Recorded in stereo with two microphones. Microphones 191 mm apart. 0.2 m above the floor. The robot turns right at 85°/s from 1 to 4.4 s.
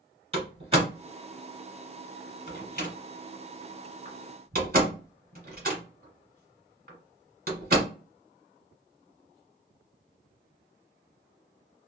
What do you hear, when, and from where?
0.3 s a door slam: 30° right (ahead or behind), 1.5 m; by 7.9 s 50° right (ahead or behind), 1.5 m